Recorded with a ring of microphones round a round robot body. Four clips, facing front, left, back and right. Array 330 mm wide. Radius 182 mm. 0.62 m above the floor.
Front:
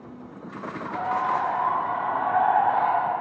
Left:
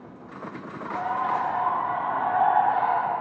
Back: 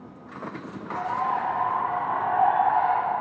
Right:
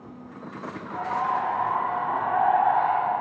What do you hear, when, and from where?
0.9 s a bird: 30° left, 7.5 m